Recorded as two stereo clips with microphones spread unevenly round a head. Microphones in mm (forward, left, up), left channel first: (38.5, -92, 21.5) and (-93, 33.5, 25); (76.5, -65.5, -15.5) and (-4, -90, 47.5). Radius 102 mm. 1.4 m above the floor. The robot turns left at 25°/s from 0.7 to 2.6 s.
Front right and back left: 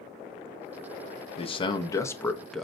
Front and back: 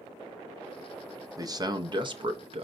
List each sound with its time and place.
1.4 s a man speaking: 100° right, 0.6 m; by 2.6 s 135° right, 0.6 m